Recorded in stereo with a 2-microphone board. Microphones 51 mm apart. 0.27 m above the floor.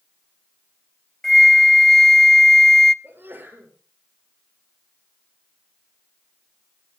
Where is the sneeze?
40° right (ahead or behind), 6.5 m.